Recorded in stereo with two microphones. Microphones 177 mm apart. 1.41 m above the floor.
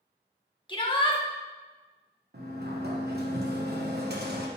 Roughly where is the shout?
Left.